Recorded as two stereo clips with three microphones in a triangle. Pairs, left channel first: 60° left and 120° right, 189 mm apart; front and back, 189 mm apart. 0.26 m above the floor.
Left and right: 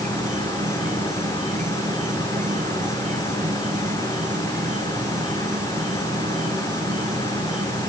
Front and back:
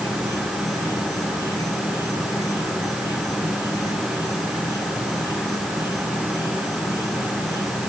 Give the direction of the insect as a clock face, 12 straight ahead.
2 o'clock.